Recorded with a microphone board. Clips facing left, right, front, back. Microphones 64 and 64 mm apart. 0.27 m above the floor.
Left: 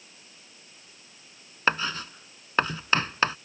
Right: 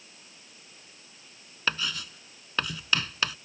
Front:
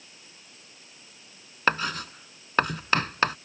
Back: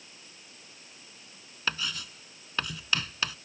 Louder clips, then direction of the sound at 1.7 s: Left 5 dB, front 8 dB; 35° left.